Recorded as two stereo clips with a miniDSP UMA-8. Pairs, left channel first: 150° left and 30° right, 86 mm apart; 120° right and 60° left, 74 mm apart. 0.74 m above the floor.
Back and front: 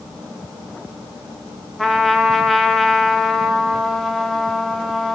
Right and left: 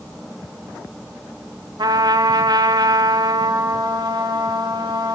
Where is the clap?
No clap in this recording.